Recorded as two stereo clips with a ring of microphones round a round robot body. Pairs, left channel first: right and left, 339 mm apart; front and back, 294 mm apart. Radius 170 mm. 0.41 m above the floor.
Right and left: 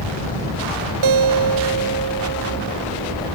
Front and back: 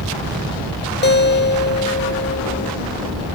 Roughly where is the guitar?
Ahead left.